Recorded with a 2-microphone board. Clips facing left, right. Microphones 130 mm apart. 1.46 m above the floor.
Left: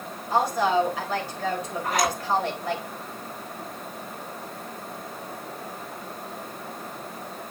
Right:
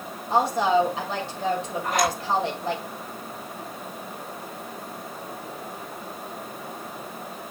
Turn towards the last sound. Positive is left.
turn(degrees=0)  # may be behind; listen again after turning